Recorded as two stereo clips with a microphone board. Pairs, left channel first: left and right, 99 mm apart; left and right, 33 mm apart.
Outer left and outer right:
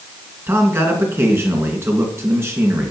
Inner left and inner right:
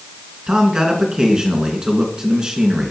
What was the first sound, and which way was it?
A man speaking, 25° right (ahead or behind).